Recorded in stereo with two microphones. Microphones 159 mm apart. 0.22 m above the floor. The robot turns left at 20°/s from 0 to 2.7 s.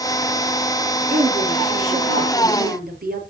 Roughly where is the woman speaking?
Ahead right.